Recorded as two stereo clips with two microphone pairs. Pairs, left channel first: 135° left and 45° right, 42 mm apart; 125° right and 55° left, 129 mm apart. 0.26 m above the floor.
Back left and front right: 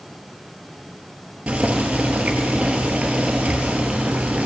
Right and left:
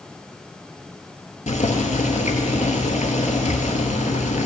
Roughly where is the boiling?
Right.